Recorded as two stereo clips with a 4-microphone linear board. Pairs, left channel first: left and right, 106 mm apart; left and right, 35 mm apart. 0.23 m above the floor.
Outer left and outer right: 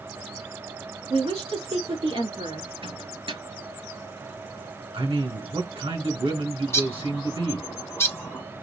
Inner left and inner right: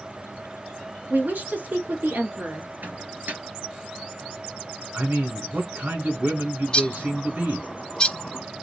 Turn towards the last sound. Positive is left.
turn(degrees=25)  # may be behind; listen again after turning